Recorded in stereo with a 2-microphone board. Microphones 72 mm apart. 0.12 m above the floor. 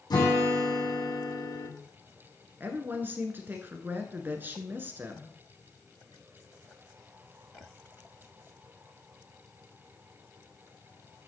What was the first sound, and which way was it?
A guitar, 75° left (ahead or behind).